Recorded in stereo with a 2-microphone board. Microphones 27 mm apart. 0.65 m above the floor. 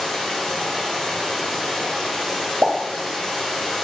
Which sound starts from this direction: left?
Running water, at 0.0 s.